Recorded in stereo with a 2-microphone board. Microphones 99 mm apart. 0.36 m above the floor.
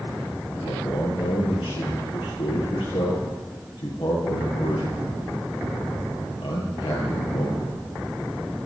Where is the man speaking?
80° left, 9 m.